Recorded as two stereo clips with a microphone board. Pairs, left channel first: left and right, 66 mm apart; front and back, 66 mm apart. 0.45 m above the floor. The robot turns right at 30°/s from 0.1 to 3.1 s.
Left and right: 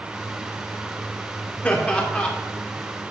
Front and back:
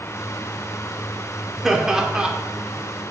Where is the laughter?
110° left, 1.0 m; by 2.3 s 130° left, 1.0 m.